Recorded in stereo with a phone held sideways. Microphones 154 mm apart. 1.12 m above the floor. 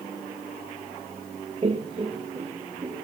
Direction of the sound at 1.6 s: 35° right (ahead or behind).